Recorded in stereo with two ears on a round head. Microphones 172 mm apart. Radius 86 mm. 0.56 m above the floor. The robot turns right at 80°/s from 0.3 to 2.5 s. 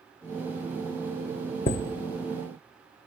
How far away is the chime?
About 0.7 m.